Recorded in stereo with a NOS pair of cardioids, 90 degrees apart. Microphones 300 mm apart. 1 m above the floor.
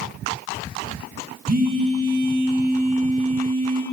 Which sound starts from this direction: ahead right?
A phone buzzing, at 1.5 s.